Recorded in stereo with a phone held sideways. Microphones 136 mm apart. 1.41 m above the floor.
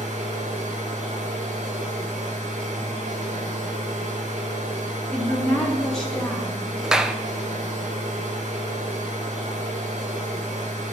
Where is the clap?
5° right (ahead or behind), 0.6 m.